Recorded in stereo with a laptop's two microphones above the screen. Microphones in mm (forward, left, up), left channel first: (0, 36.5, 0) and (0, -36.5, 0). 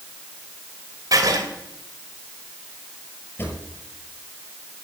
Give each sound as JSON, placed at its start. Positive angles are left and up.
{"t": 1.1, "sound": "writing", "side_deg": -55, "distance_m": 2.5}
{"t": 3.4, "sound": "a drawer", "side_deg": 30, "distance_m": 6.0}